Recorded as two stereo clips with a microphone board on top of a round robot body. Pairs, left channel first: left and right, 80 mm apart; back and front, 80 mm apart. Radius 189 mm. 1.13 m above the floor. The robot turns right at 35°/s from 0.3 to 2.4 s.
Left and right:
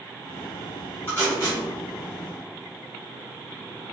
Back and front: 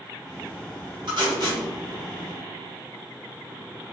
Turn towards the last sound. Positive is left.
turn(degrees=70)